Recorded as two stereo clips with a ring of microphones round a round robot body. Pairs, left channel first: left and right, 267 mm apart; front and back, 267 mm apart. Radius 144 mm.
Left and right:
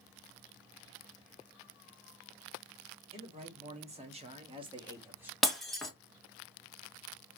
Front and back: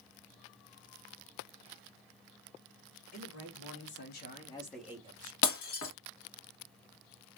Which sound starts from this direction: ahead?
Breaking glass, at 5.4 s.